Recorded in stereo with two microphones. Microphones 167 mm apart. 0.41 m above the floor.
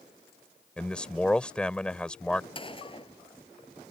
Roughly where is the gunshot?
Left.